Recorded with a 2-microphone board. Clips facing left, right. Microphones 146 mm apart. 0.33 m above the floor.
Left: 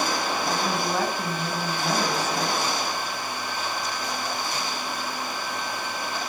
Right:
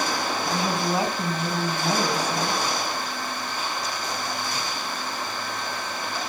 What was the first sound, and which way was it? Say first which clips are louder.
A woman speaking: right 3 dB; 15° right (ahead or behind).